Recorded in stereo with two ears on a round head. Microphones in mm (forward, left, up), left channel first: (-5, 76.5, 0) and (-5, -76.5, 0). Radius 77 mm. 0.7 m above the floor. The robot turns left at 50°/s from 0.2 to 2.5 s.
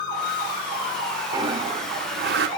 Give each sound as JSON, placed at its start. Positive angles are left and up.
{"t": 1.3, "sound": "a toilet flushing", "azimuth_deg": -20, "distance_m": 0.6}